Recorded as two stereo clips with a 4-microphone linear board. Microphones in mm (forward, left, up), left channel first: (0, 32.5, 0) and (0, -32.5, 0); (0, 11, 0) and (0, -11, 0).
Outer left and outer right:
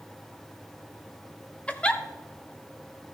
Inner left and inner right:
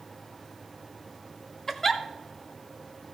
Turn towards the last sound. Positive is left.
turn(degrees=20)  # may be behind; listen again after turning